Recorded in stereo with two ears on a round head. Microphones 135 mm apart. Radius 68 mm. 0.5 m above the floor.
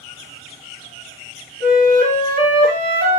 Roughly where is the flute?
Right.